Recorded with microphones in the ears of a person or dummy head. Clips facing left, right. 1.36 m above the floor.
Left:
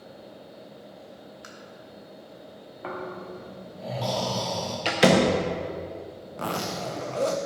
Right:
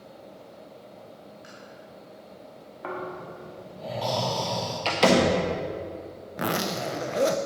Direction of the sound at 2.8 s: 5° right (ahead or behind).